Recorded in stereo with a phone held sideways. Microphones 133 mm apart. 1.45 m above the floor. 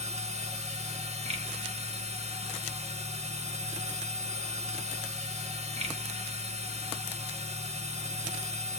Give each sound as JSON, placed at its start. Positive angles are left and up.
{"t": 0.0, "sound": "a machine running", "side_deg": -55, "distance_m": 1.9}